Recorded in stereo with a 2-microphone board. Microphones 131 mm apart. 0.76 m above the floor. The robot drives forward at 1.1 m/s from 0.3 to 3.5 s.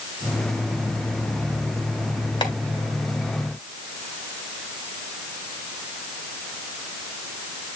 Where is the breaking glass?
No breaking glass in this recording.